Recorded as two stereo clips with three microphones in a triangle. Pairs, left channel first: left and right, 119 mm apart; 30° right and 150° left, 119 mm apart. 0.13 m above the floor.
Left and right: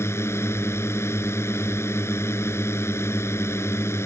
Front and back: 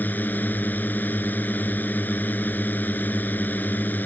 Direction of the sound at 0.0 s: 35° left.